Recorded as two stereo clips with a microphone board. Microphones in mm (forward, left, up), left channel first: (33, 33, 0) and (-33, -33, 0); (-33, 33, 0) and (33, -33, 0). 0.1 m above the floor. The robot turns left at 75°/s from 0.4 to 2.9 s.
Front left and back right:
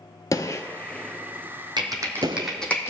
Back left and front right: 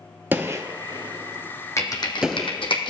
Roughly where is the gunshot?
Ahead.